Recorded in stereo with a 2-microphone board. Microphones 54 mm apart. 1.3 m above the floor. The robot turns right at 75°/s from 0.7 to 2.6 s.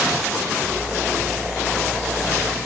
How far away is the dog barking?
No dog barking in this recording.